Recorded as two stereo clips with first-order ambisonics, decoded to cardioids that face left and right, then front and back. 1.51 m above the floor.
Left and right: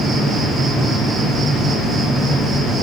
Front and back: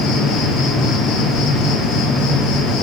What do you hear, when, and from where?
0.0 s an insect: 20° right, 0.9 m